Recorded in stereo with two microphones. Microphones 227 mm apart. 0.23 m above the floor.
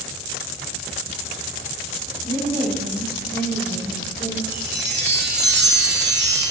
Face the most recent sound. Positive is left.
turn(degrees=-50)  # may be behind; listen again after turning